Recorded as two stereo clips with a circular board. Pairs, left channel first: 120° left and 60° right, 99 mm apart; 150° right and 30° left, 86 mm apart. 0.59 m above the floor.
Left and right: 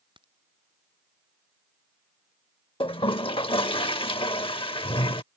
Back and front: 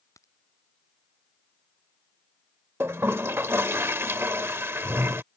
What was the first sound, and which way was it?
A crack, 95° right.